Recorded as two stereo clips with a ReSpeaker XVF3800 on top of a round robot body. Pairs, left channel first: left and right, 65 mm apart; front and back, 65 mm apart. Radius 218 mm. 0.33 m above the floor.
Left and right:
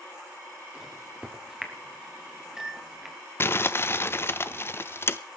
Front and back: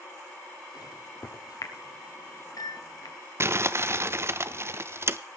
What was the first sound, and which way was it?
A microwave, 10° right.